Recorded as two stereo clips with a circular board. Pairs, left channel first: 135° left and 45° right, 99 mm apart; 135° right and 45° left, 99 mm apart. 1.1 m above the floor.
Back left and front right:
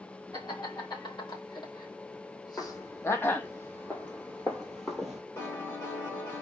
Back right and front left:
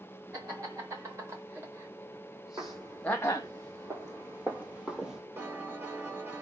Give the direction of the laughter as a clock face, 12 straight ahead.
9 o'clock.